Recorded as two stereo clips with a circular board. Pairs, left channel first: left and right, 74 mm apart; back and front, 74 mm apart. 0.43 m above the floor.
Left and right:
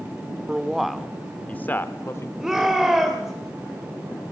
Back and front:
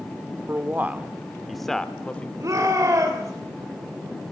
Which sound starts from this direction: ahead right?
A man speaking, at 0.5 s.